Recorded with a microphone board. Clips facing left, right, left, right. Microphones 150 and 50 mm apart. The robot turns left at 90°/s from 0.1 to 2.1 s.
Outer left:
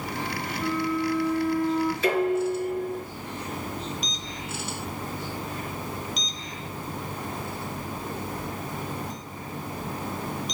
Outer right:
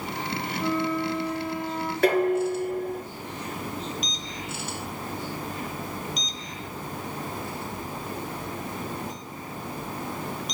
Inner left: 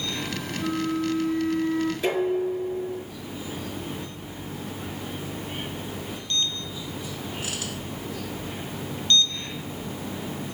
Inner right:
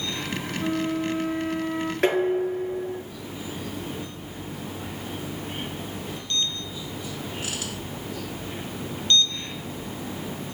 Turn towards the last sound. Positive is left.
turn(degrees=-60)  # may be behind; listen again after turning